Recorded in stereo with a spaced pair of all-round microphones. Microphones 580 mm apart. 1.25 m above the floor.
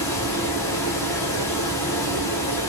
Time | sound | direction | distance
0.0 | a fan | 5° left (ahead or behind) | 0.9 m